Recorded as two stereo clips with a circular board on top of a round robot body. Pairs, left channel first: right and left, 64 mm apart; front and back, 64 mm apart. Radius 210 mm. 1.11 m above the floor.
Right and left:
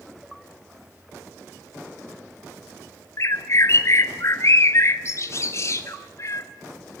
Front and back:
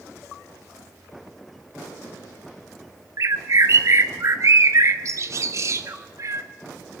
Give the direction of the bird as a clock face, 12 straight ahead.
5 o'clock.